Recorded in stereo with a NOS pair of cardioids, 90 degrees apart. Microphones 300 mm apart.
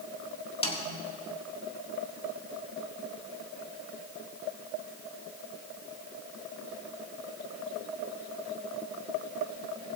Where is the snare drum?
20° left, 1.9 m.